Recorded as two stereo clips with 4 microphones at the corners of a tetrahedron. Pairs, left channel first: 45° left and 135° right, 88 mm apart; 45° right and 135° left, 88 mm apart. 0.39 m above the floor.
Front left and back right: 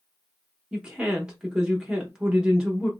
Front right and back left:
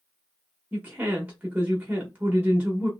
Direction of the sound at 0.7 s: 160° left.